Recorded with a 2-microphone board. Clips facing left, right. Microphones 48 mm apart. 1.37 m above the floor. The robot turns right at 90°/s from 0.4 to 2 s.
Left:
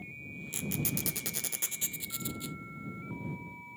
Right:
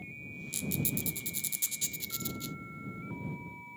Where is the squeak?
30° left (ahead or behind); by 2.6 s 10° left (ahead or behind).